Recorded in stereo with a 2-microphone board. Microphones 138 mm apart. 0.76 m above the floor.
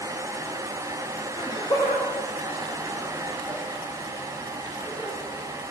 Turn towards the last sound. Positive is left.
turn(degrees=25)  # may be behind; listen again after turning